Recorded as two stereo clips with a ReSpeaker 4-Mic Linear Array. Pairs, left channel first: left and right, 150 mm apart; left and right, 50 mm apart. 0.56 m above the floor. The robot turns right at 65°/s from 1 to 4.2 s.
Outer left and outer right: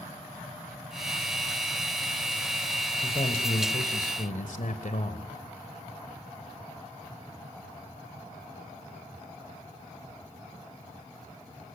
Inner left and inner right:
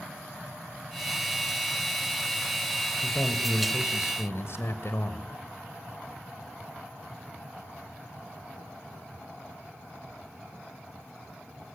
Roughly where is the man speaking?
Ahead left.